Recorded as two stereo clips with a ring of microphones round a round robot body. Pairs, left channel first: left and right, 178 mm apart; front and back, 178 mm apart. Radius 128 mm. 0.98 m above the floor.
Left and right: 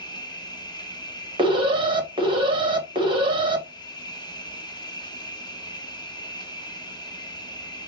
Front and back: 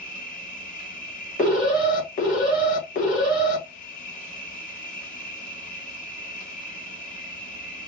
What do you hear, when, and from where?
0.0 s an insect: 30° left, 1.2 m
1.4 s an alarm: 35° right, 1.2 m